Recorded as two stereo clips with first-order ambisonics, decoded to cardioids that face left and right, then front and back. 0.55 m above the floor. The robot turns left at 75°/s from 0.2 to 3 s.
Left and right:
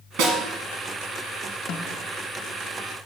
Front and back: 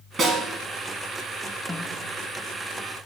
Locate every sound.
0.2 s a snare drum: 115° right, 1.9 m; by 0.4 s 130° right, 1.9 m
1.7 s a snare drum: 90° left, 0.7 m; by 2.0 s 70° left, 0.7 m